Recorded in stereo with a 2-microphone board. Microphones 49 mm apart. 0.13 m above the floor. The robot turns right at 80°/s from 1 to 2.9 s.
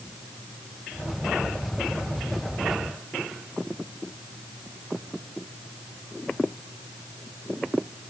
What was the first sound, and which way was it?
Only background noise.